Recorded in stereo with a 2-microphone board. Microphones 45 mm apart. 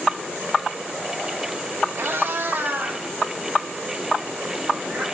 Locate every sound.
1.9 s a cat meowing: 70° right (ahead or behind), 2.5 m; by 5.0 s 20° right (ahead or behind), 5.5 m